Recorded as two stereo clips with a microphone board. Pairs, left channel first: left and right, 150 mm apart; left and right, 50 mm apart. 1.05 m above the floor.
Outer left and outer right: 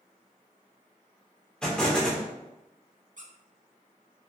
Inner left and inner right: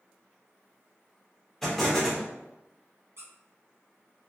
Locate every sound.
1.6 s an explosion: 5° left (ahead or behind), 0.9 m
3.2 s a squeak: 65° right (ahead or behind), 0.6 m